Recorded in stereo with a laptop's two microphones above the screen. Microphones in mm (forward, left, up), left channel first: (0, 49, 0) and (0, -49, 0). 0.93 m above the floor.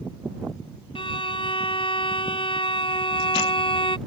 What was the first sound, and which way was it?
A violin, 65° left (ahead or behind).